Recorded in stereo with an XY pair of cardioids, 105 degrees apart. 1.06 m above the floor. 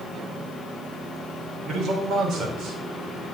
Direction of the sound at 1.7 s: 70° right.